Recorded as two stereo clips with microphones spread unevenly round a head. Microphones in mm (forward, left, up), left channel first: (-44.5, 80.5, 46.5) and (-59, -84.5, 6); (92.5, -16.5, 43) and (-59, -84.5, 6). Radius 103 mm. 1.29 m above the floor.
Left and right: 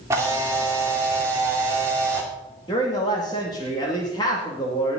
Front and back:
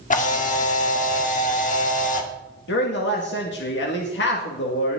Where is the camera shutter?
15° right, 2 m.